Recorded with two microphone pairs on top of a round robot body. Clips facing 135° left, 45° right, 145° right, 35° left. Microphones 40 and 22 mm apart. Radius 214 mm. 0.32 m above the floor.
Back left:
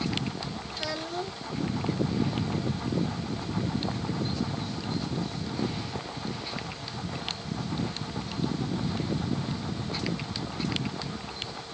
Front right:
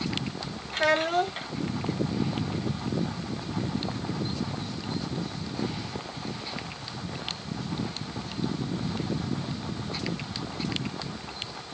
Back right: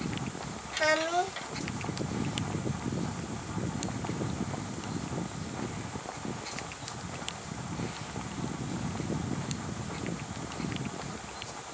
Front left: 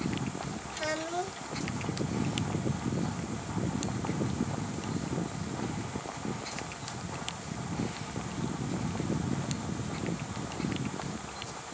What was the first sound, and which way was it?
A child speaking, 85° right.